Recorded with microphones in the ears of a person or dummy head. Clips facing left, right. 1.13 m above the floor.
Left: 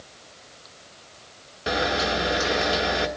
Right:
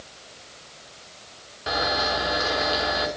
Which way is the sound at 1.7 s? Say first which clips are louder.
Left 2 dB; 30° left (ahead or behind).